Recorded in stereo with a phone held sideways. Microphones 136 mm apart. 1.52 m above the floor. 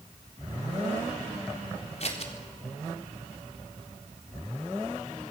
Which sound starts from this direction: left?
Scissors, at 2.0 s.